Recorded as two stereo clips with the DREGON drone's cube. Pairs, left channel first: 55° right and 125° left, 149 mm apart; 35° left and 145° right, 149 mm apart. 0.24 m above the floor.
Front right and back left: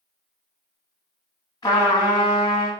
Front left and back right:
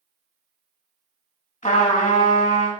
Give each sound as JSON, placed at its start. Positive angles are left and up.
{"t": 1.6, "sound": "a trumpet", "azimuth_deg": 5, "distance_m": 0.7}